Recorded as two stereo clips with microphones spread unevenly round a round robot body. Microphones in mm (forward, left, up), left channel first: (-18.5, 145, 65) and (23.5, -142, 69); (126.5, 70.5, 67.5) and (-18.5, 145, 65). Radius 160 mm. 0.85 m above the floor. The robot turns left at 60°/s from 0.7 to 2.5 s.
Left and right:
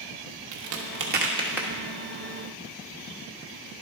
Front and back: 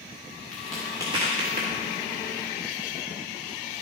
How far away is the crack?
About 1.2 m.